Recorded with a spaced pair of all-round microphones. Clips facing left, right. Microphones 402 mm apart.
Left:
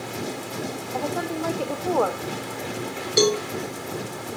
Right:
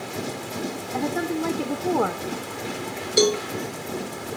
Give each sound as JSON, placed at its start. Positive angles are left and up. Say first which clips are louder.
{"t": 0.9, "sound": "a woman speaking", "louder": "right 3 dB", "side_deg": -30, "distance_m": 0.7}
{"t": 3.2, "sound": "a cowbell", "louder": "even", "side_deg": 5, "distance_m": 1.0}